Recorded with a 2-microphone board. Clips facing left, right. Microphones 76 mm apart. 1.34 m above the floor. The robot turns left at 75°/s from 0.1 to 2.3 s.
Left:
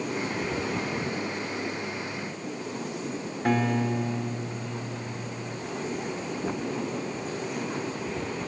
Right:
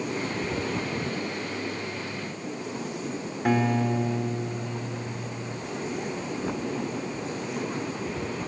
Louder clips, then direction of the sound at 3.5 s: Right 1 dB; centre (ahead or behind).